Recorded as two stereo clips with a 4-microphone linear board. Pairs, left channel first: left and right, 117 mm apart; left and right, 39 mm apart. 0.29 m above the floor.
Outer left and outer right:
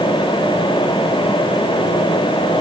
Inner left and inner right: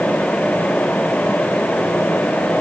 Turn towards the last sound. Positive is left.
No sound to turn to.